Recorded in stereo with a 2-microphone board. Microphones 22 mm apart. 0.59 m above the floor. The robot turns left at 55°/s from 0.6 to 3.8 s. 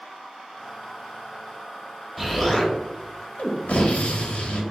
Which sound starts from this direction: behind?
An explosion, at 2.2 s.